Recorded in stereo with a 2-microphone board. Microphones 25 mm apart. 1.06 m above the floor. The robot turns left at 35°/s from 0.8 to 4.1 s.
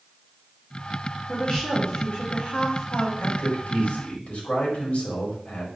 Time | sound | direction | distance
1.3 | a woman speaking | 150° left | 3 m
3.2 | a man speaking | 95° left | 4 m